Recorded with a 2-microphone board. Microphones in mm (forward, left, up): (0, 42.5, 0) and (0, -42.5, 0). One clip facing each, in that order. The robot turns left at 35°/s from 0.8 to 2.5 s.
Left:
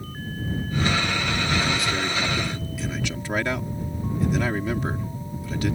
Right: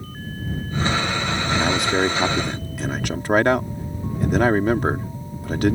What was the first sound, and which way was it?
A man speaking, 80° right.